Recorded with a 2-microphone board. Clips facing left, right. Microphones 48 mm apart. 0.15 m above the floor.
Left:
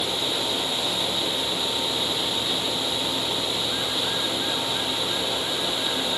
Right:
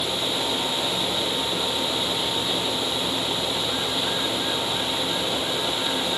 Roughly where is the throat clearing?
I don't hear throat clearing.